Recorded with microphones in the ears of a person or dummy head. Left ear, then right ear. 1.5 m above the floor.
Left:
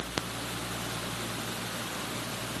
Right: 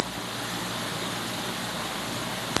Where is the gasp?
No gasp in this recording.